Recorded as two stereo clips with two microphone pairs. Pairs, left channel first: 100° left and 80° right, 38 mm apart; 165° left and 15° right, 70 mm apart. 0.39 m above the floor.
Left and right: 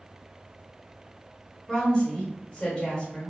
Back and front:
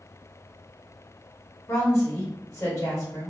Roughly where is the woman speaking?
Behind.